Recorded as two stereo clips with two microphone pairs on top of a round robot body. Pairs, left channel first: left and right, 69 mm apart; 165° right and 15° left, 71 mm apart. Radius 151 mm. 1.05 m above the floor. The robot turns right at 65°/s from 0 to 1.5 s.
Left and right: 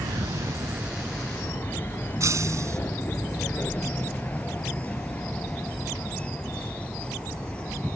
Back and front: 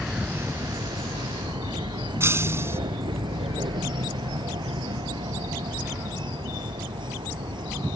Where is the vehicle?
65° right; by 8.0 s 15° left.